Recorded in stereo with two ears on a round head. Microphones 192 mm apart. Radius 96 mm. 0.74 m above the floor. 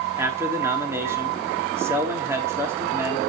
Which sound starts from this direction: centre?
A man speaking, at 0.2 s.